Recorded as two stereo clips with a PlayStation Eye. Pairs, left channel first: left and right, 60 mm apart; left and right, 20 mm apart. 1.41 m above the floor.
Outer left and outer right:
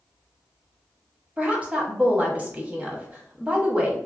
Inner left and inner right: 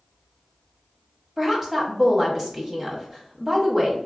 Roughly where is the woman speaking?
Right.